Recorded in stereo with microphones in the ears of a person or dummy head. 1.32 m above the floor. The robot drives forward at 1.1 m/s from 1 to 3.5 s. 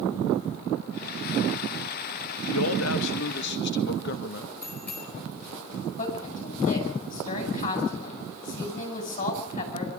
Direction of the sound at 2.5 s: 80° left.